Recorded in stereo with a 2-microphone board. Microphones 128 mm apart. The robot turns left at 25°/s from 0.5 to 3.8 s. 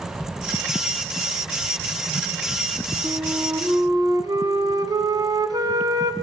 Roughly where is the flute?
Right.